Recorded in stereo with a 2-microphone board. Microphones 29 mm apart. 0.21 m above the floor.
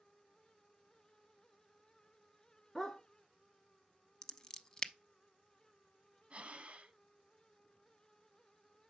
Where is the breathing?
40° right (ahead or behind), 0.5 m.